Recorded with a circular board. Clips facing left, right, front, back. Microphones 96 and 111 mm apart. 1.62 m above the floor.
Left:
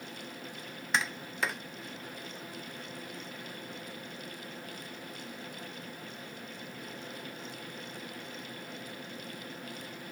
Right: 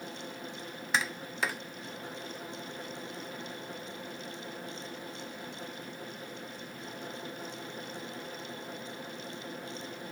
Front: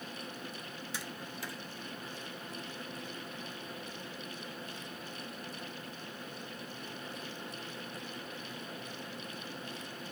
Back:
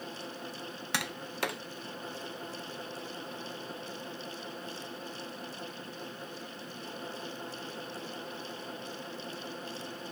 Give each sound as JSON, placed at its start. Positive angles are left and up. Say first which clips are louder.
{"t": 0.9, "sound": "tapping", "louder": "even, back 10 dB", "azimuth_deg": 180}